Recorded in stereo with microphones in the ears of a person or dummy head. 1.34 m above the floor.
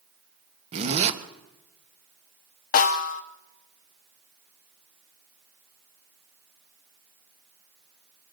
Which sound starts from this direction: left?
A snare drum, at 2.7 s.